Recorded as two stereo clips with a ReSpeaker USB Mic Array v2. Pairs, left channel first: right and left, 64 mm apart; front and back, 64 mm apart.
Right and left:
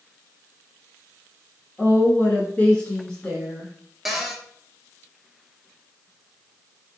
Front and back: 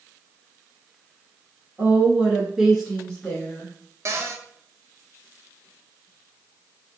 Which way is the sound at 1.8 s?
140° right.